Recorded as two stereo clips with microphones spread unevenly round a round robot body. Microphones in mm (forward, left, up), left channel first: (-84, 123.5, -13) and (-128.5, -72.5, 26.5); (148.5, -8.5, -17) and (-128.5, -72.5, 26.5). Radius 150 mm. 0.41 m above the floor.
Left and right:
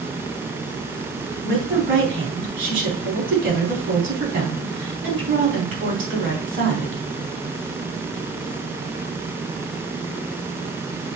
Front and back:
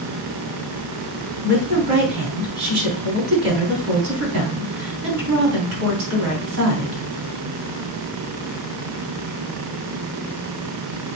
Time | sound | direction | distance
1.4 | a woman speaking | 130° right | 4.5 m